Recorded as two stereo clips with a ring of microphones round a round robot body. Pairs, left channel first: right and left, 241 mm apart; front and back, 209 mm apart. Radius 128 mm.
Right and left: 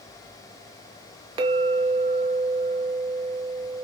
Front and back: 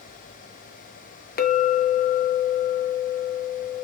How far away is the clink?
About 0.7 m.